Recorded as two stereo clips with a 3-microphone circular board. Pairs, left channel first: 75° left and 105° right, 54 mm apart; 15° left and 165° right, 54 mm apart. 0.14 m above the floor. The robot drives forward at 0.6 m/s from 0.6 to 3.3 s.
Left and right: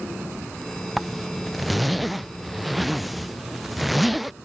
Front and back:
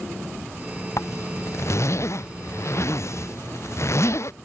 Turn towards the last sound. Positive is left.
turn(degrees=-15)